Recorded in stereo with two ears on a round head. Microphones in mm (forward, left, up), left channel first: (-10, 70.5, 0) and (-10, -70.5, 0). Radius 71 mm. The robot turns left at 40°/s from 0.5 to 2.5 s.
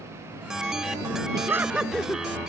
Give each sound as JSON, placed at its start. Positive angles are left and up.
{"t": 1.3, "sound": "laughter", "azimuth_deg": -155}